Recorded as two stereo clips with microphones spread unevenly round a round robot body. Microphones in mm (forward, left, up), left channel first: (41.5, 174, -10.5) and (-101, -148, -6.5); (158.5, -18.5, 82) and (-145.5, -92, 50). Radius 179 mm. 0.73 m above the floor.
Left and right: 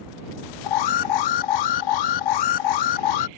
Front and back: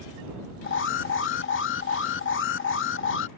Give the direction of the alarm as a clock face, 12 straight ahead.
10 o'clock.